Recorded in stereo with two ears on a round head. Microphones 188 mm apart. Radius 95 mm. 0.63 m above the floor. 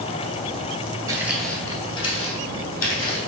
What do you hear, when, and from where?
1.1 s footsteps: 15° right (ahead or behind), 0.6 m; by 3.2 s 45° left (ahead or behind), 1.5 m